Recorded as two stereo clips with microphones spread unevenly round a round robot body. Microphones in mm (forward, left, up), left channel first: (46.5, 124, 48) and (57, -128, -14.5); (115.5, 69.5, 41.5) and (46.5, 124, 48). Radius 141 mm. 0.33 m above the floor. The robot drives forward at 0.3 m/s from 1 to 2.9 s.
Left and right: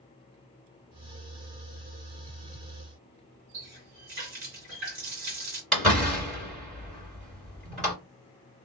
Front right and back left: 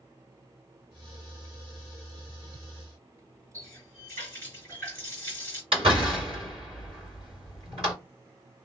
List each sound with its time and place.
3.5 s a running tap: 145° right, 2.0 m
5.7 s a door slam: 175° right, 2 m